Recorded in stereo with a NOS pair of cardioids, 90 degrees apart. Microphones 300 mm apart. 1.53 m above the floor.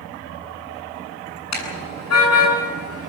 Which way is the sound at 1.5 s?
60° left.